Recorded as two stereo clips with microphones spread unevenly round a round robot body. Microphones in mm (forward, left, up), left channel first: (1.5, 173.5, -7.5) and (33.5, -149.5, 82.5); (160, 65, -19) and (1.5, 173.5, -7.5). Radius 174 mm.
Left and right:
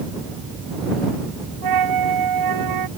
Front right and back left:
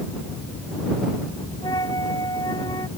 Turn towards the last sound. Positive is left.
turn(degrees=-115)